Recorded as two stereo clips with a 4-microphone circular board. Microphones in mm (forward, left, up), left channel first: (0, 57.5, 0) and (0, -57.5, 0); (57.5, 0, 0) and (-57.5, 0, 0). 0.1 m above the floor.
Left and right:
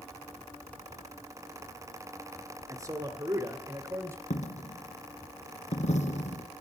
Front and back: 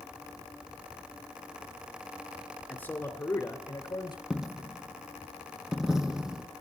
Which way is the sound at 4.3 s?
95° left.